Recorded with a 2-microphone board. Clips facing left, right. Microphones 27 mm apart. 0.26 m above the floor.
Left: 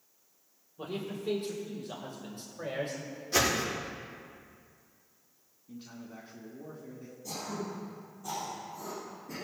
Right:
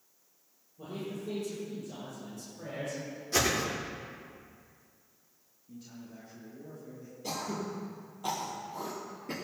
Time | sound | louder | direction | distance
0.8 | a man speaking | left 2 dB | 65° left (ahead or behind) | 6.5 m
3.3 | a whoosh | left 1 dB | 10° left (ahead or behind) | 5 m
5.7 | a man speaking | left 2 dB | 50° left (ahead or behind) | 2.5 m
7.2 | throat clearing | right 2 dB | 70° right (ahead or behind) | 4.5 m